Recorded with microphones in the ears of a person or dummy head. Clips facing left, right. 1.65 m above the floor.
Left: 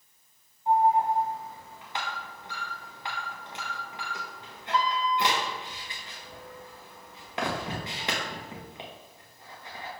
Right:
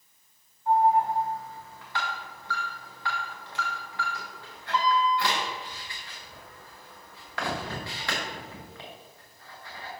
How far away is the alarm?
About 1.2 m.